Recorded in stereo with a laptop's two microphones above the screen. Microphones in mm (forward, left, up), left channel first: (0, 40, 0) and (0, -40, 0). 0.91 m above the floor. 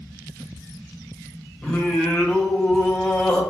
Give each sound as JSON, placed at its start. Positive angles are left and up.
{"t": 1.6, "sound": "singing", "side_deg": 15, "distance_m": 0.7}